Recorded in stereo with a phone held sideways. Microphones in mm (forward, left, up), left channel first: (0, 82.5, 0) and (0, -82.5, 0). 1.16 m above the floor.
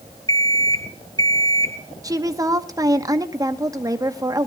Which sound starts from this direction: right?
A woman speaking, at 2.0 s.